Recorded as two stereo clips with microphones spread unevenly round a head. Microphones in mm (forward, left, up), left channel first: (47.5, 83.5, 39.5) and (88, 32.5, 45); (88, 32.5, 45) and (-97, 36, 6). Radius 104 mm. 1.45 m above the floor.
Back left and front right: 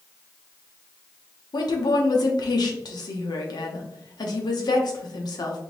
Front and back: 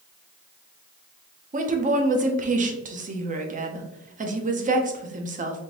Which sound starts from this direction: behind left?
A woman speaking, at 1.5 s.